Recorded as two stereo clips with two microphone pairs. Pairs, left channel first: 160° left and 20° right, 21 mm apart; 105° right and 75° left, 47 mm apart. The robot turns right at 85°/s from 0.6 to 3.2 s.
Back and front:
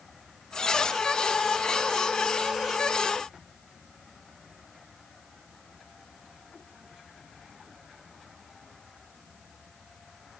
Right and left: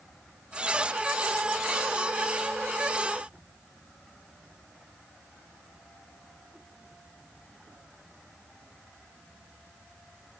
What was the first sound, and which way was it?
Only background noise.